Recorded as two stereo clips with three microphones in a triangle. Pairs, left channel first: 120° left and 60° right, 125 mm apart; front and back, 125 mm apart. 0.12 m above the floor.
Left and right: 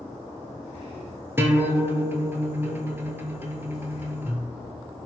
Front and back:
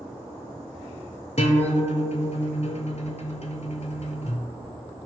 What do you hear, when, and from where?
1.4 s a guitar: 5° left, 0.6 m